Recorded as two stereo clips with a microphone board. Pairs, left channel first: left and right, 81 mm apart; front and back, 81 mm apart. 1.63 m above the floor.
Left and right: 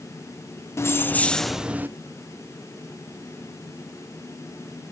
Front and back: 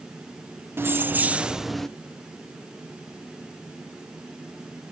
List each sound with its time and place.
0.8 s keys jangling: 130° left, 0.7 m; by 1.9 s 75° right, 0.6 m